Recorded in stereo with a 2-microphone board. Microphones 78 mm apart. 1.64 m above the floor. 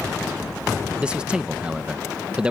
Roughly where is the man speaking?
Centre.